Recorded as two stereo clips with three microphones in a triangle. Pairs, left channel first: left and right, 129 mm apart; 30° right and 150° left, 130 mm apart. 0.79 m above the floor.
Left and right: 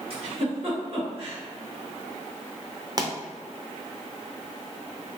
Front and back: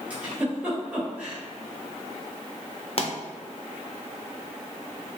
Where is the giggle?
130° right, 1.1 m.